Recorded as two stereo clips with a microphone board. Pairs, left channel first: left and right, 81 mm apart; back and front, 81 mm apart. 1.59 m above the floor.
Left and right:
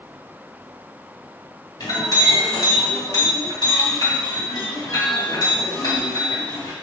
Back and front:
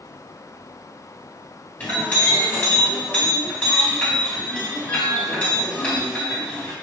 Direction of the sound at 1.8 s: 110° left.